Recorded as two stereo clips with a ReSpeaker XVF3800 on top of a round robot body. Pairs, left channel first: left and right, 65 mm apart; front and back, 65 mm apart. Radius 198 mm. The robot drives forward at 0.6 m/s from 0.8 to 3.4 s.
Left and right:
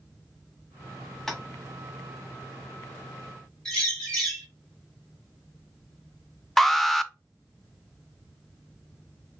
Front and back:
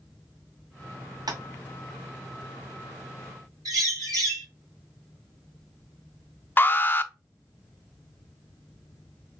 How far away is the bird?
About 3 m.